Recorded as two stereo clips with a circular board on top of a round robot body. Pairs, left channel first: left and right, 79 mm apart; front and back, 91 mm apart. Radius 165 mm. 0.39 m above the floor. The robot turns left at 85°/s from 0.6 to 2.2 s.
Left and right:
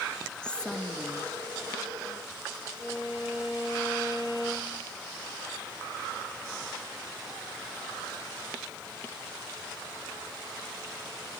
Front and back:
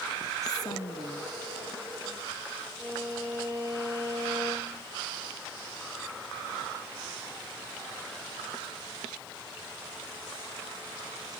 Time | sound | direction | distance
0.4 | a woman speaking | 15° left | 1.7 m
2.8 | a violin | 65° left | 6.5 m